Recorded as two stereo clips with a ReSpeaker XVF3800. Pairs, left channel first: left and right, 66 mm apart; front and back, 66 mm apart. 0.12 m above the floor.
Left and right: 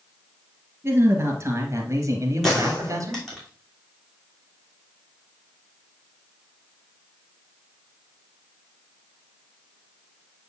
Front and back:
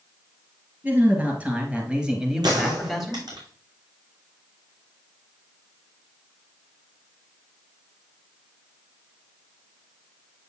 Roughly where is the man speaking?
Behind right.